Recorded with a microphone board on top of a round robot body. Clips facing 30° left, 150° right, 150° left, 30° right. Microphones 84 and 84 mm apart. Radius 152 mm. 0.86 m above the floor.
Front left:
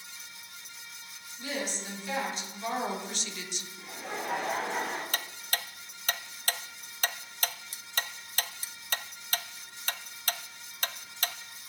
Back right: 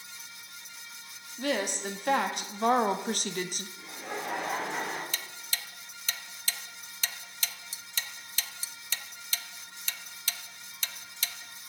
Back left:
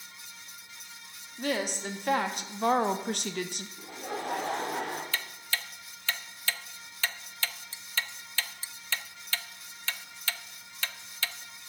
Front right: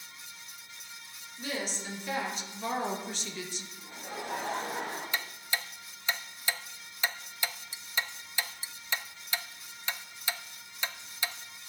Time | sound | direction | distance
1.4 | a woman speaking | 175° right | 2 m
3.8 | laughter | 120° left | 3 m
5.1 | ticking | 40° left | 0.7 m